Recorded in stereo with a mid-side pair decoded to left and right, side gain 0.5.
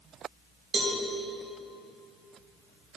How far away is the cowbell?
About 2.5 m.